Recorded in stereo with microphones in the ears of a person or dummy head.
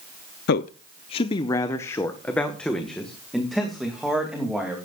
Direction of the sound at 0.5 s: 50° left (ahead or behind).